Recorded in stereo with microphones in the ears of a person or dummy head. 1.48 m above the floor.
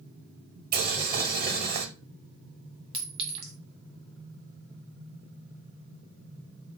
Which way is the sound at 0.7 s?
45° right (ahead or behind).